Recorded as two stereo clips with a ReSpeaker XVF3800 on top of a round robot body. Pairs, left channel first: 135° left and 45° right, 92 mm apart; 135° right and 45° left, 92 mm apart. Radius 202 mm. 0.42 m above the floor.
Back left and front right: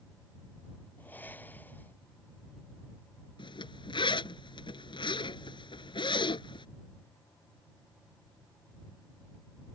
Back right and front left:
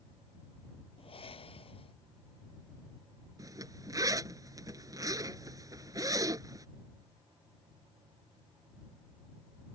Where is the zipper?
100° left.